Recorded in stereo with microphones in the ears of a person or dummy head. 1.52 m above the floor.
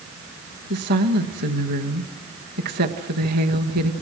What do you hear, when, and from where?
0.7 s a woman speaking: 55° right (ahead or behind), 1.3 m